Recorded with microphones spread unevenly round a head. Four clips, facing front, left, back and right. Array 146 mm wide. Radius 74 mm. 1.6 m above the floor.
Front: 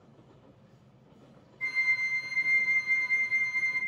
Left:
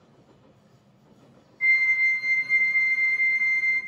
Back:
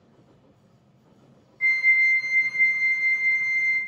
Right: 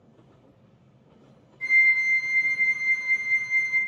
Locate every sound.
1.6 s a flute: 170° left, 1.1 m